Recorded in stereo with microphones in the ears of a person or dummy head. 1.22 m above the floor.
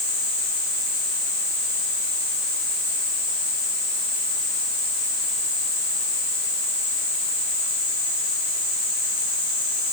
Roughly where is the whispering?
I don't hear whispering.